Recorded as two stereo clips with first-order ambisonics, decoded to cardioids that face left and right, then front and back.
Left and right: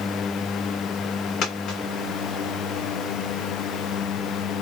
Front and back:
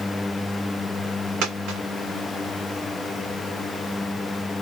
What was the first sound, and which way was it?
A dropped coin, 145° left.